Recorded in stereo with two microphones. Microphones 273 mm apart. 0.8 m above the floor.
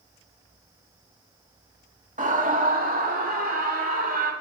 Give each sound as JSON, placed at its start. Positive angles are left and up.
{"t": 2.2, "sound": "a scream", "side_deg": -30, "distance_m": 1.7}